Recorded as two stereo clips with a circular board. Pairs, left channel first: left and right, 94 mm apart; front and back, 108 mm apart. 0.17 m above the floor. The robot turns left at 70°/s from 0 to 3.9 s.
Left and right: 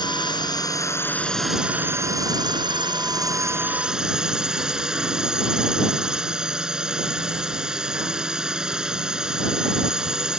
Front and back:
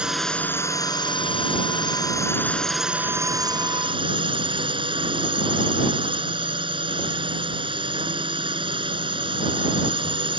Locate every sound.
0.0 s a drone: 100° left; by 10.4 s 170° right